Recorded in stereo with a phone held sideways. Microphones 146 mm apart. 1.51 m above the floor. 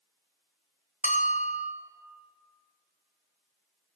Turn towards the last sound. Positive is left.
turn(degrees=55)  # may be behind; listen again after turning